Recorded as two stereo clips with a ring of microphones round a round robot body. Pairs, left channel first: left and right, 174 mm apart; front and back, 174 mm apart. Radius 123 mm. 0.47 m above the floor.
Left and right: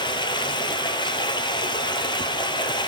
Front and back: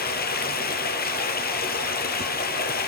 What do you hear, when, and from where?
0.0 s running water: 25° left, 1.2 m